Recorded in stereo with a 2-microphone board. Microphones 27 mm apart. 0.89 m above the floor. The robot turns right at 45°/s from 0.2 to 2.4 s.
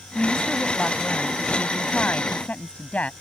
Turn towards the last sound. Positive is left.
turn(degrees=125)